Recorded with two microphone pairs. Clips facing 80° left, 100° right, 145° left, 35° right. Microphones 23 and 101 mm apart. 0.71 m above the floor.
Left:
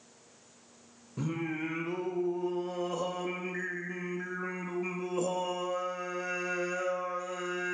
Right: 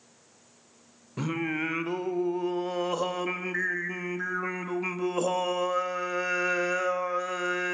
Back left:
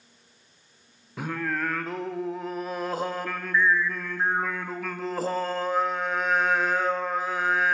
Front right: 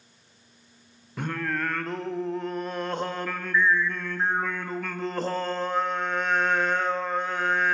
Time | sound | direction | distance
1.2 | singing | 130° right | 0.5 m